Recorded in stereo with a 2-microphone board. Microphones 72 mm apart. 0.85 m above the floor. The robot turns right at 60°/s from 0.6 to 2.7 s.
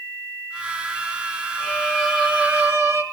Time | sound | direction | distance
1.6 | a violin | 155° left | 1.4 m